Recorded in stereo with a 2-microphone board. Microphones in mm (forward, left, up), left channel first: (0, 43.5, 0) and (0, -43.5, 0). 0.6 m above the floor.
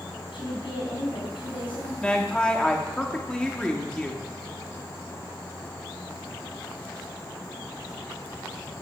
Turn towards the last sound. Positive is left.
turn(degrees=10)  # may be behind; listen again after turning